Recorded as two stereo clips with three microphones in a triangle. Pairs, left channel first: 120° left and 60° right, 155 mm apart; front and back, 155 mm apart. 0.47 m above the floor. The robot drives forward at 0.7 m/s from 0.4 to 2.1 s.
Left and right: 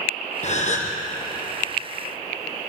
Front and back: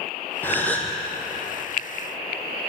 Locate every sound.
0.4 s a gasp: 75° left, 4 m; by 0.9 s 80° left, 4 m